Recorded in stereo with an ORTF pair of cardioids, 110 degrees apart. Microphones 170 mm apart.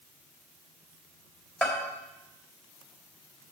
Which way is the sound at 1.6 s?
5° left.